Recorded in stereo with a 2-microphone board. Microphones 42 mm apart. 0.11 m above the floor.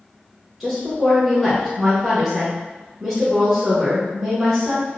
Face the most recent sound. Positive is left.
turn(degrees=-5)  # may be behind; listen again after turning